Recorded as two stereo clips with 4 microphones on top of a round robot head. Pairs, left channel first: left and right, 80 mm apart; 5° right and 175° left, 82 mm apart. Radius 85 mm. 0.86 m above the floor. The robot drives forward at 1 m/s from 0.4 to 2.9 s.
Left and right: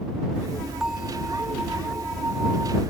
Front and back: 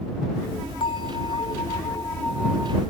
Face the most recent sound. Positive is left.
turn(degrees=-155)